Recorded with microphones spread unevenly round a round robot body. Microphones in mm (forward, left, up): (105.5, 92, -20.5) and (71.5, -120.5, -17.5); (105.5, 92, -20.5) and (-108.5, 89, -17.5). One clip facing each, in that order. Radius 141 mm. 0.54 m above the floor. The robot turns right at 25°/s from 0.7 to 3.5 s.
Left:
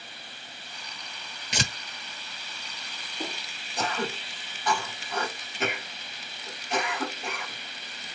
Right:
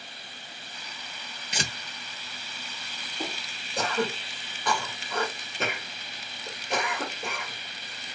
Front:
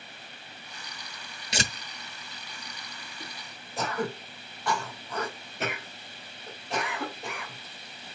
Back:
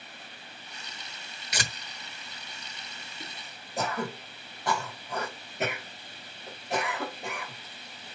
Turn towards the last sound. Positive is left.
turn(degrees=-105)